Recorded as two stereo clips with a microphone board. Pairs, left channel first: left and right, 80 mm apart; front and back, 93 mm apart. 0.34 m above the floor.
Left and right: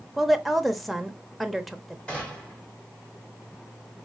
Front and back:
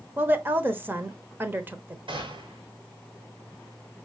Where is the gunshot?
165° left, 3 m.